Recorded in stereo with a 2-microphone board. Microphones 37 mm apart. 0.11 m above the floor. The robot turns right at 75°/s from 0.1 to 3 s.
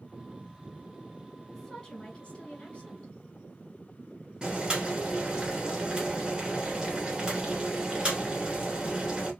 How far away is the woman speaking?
About 1.9 m.